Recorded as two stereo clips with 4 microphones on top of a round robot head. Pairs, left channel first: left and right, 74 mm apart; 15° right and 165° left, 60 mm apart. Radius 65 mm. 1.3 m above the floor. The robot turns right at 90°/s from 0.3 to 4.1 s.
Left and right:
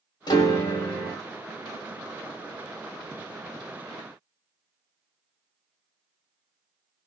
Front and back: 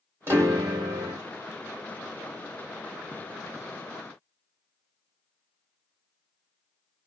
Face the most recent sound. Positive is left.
turn(degrees=100)